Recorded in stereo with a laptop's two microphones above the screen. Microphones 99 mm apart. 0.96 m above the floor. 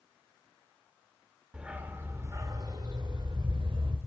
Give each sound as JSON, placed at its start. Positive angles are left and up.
{"t": 1.5, "sound": "a dog barking", "side_deg": -10, "distance_m": 1.3}